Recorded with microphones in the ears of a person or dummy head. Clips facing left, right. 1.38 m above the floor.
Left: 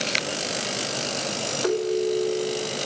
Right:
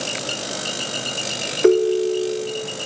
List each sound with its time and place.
1.6 s a ringtone: 40° right (ahead or behind), 0.7 m